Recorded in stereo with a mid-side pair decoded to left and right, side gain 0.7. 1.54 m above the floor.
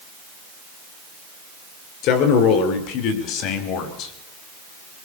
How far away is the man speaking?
About 6 m.